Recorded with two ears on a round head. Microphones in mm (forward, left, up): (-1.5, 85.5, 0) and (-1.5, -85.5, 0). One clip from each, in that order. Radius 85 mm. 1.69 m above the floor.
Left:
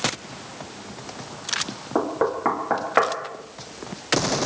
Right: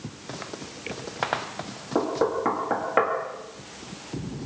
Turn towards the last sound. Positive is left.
turn(degrees=25)  # may be behind; listen again after turning